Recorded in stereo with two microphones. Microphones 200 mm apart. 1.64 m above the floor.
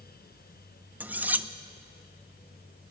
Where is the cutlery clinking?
10° right (ahead or behind), 0.7 m.